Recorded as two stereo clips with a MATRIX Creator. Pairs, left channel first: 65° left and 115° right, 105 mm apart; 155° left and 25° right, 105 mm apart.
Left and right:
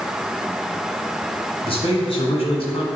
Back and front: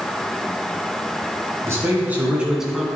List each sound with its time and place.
1.6 s a man speaking: 40° left, 2 m; by 2.9 s 70° left, 1.6 m